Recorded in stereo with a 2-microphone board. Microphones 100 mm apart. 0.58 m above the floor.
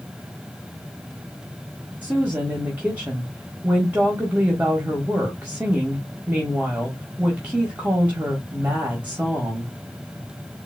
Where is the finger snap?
I don't hear a finger snap.